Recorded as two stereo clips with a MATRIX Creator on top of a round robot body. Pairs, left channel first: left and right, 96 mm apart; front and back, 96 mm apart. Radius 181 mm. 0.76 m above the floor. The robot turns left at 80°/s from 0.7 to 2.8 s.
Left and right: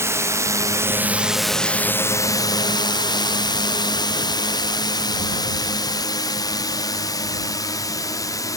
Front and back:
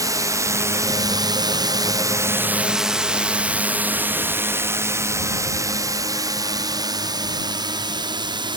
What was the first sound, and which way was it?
A drone, 140° right.